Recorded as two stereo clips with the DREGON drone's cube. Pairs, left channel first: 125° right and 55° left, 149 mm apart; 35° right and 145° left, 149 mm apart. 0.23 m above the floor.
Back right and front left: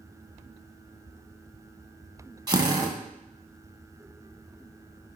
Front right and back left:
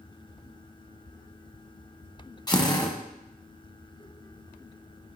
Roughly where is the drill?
Ahead.